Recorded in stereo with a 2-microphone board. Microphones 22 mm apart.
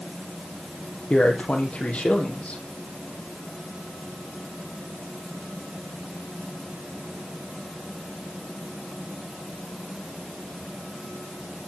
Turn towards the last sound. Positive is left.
turn(degrees=70)  # may be behind; listen again after turning